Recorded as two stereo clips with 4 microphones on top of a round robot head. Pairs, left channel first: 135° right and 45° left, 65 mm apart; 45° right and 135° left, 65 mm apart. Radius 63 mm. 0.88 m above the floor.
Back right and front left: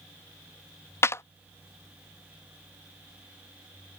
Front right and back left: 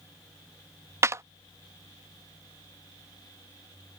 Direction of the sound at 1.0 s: Straight behind.